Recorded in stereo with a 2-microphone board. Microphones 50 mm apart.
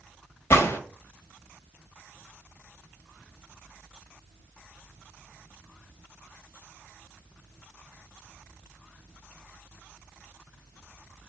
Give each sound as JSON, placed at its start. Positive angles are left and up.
{"t": 0.5, "sound": "a gunshot", "side_deg": 65, "distance_m": 1.4}